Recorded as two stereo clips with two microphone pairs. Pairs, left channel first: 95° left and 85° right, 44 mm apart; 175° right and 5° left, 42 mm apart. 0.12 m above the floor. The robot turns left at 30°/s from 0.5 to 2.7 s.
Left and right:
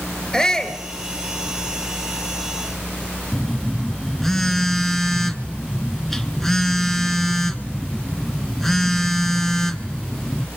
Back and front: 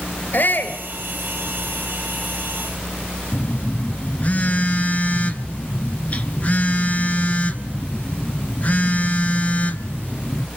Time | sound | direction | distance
0.3 | a shout | 170° left | 2.5 m
3.3 | a phone buzzing | 175° left | 1.1 m